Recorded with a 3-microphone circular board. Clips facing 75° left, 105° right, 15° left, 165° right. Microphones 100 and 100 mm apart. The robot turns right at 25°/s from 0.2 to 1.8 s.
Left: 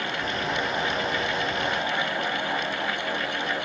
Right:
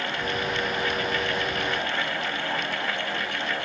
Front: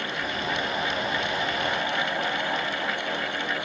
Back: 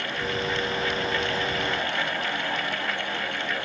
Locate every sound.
Only background noise.